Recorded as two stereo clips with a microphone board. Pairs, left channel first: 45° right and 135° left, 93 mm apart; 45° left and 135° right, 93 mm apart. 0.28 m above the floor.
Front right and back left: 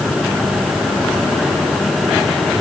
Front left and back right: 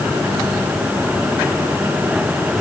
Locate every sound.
Only background noise.